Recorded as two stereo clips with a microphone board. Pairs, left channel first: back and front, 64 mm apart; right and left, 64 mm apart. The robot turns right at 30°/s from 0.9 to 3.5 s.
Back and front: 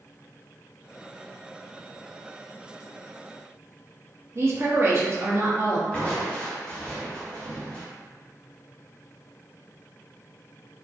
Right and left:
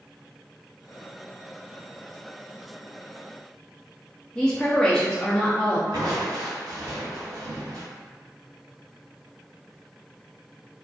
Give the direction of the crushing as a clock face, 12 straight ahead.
8 o'clock.